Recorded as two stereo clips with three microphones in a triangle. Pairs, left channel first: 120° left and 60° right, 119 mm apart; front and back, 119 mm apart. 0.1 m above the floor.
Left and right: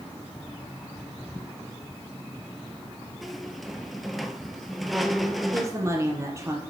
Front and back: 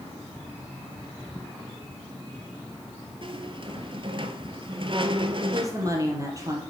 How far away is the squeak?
About 0.9 m.